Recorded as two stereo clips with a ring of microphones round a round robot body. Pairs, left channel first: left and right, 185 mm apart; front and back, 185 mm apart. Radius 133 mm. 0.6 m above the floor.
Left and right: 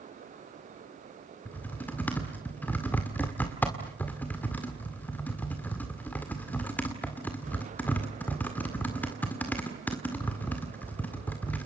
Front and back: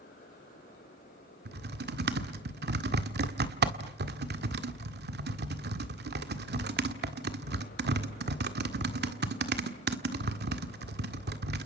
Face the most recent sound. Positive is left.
turn(degrees=170)